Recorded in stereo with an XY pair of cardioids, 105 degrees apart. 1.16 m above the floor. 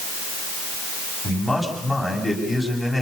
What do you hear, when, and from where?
1.2 s a man speaking: 5° right, 8.5 m